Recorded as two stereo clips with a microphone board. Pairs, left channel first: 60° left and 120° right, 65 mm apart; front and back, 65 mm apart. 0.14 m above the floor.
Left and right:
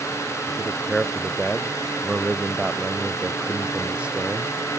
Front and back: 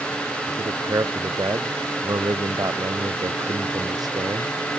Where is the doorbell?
I don't hear a doorbell.